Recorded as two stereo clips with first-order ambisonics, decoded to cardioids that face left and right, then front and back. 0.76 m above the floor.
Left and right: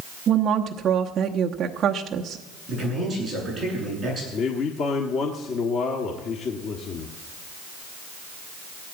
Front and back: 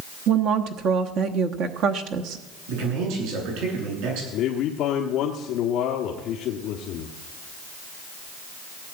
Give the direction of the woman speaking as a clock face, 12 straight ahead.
5 o'clock.